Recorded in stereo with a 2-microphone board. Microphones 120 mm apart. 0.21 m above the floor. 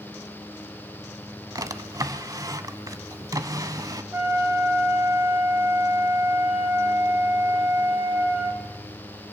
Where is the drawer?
30° right (ahead or behind), 0.9 m.